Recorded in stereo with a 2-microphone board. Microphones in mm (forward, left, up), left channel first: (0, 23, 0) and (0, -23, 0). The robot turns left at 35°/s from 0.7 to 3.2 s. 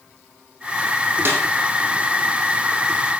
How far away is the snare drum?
About 5.5 m.